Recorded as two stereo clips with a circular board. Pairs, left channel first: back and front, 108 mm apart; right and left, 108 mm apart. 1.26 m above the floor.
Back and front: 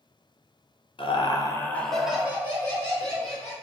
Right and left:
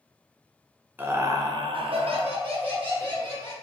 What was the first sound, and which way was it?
Laughter, 160° left.